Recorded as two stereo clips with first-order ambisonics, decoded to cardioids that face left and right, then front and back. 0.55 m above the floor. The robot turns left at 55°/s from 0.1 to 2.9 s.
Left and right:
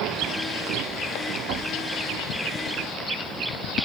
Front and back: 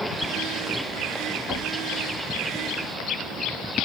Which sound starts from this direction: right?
Knocking, at 1.5 s.